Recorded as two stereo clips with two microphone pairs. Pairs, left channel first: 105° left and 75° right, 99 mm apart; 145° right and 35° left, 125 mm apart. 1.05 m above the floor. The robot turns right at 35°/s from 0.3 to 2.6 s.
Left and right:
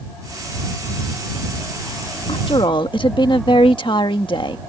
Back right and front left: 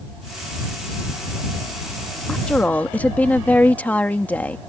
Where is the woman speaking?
130° left; by 4.6 s 140° left.